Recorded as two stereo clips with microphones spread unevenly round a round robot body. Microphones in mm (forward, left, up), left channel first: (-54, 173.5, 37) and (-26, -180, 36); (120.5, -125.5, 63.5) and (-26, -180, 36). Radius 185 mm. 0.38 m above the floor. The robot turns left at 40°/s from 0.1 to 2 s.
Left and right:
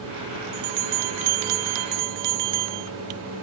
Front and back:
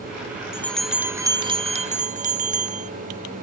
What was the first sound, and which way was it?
A bell, 60° right.